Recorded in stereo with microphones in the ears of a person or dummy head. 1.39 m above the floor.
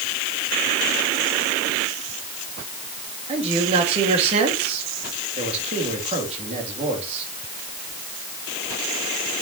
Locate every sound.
3.3 s a man speaking: 35° right (ahead or behind), 2.5 m